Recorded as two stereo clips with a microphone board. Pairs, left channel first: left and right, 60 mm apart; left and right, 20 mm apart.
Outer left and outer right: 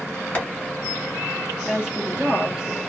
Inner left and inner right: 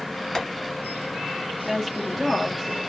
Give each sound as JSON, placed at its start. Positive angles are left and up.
{"t": 0.3, "sound": "tapping", "side_deg": 20, "distance_m": 1.5}
{"t": 1.6, "sound": "a woman speaking", "side_deg": -20, "distance_m": 0.5}